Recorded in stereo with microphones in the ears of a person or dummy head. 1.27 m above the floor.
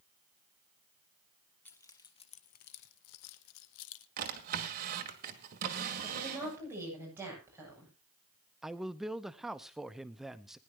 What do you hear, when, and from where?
1.6 s keys jangling: 10° left (ahead or behind), 1.2 m; by 4.1 s 70° left (ahead or behind), 1.3 m
4.2 s a drawer: 50° right (ahead or behind), 1.8 m
6.0 s a woman speaking: 15° right (ahead or behind), 9 m
8.6 s a man speaking: centre (ahead or behind), 0.7 m